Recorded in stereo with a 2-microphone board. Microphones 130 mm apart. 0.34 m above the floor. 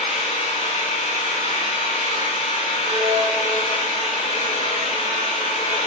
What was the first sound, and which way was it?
An engine running, 60° left (ahead or behind).